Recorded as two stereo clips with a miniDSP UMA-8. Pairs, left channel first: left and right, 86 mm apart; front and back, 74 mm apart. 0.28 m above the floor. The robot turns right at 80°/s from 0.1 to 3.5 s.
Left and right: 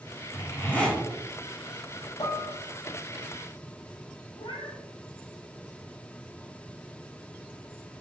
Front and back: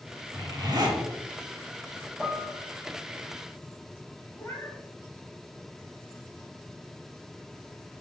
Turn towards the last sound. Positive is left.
turn(degrees=50)